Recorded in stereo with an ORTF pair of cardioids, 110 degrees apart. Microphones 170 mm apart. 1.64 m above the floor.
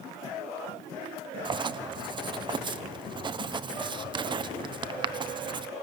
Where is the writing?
25° right, 1.2 m.